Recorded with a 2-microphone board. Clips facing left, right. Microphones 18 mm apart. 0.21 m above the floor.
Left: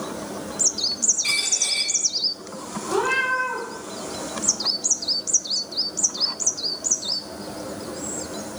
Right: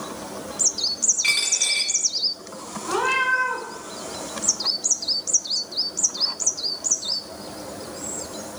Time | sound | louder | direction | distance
1.2 | a dropped coin | right 4 dB | 45° right (ahead or behind) | 1.6 m
2.9 | a cat meowing | right 1 dB | 30° right (ahead or behind) | 0.8 m